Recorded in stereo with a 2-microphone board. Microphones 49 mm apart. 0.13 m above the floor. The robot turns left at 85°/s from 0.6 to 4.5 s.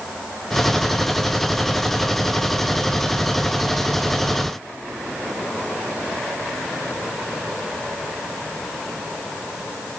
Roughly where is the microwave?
No microwave in this recording.